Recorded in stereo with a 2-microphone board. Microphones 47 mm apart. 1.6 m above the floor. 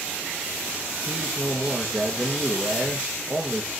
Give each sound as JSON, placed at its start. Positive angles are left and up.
{"t": 1.1, "sound": "a man speaking", "side_deg": -25, "distance_m": 1.6}